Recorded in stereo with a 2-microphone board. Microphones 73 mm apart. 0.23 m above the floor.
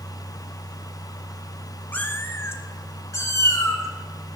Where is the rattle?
I don't hear a rattle.